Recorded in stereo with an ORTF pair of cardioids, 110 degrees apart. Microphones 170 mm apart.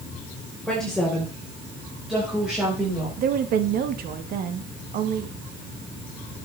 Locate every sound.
0.7 s a woman speaking: 5° left, 4 m; by 3.1 s 5° right, 5.5 m
3.2 s a woman speaking: 65° right, 1.4 m